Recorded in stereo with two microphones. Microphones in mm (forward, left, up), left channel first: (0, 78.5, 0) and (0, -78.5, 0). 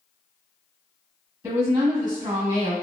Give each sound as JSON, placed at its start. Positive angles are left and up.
{"t": 1.4, "sound": "a woman speaking", "side_deg": -25, "distance_m": 1.0}